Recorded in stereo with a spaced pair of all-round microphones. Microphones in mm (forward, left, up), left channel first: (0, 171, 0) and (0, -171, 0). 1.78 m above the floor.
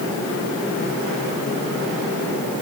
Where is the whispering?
I don't hear whispering.